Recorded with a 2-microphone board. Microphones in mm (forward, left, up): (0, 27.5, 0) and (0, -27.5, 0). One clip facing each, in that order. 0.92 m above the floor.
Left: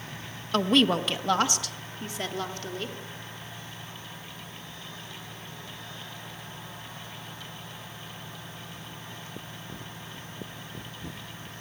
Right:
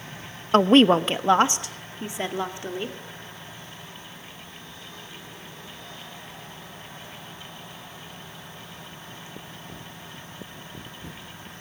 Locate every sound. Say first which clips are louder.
0.5 s a woman speaking: right 7 dB; 35° right (ahead or behind), 0.7 m; by 3.0 s 20° right (ahead or behind), 2.5 m